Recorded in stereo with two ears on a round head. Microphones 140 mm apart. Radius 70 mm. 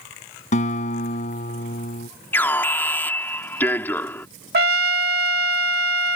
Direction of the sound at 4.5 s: 70° right (ahead or behind).